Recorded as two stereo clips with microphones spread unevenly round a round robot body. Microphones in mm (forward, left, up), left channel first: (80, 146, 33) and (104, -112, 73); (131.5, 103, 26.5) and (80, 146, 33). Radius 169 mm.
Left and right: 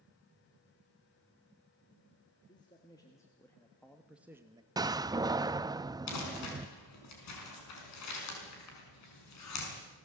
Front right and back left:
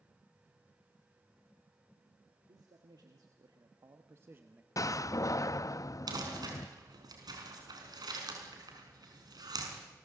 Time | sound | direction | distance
2.5 | a man speaking | 165° left | 1.9 m
4.8 | a door slam | 5° right | 0.6 m
6.1 | crumpling | 125° left | 5.5 m